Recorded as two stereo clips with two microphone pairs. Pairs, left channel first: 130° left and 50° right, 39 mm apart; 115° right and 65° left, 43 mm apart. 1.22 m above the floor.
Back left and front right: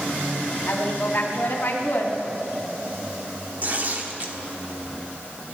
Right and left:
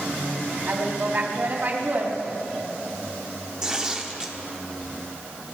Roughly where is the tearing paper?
Ahead.